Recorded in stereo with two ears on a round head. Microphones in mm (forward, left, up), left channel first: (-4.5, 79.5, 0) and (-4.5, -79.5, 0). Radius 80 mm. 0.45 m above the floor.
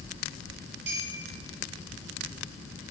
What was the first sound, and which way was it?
A clink, 65° right (ahead or behind).